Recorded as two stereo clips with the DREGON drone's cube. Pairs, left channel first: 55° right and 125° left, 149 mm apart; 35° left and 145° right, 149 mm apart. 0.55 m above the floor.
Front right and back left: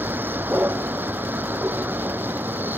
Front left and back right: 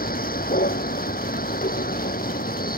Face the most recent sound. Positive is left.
turn(degrees=45)